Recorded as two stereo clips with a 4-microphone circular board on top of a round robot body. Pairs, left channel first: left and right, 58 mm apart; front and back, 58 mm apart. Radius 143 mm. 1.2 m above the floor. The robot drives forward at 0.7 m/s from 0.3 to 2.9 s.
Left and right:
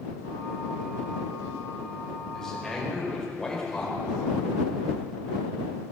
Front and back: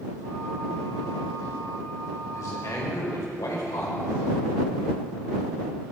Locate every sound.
2.3 s a man speaking: 10° left, 5.5 m